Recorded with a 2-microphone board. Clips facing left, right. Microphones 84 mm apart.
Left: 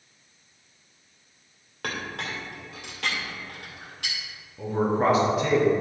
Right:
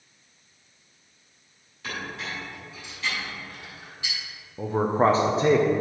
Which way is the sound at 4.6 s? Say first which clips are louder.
Right 2 dB; 35° right (ahead or behind).